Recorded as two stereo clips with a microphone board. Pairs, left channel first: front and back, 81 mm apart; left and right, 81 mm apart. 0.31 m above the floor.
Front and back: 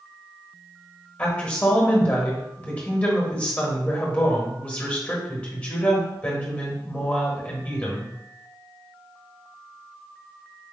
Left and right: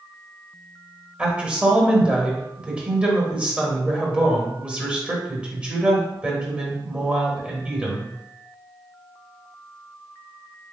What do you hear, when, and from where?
1.2 s a woman speaking: 45° right, 1.3 m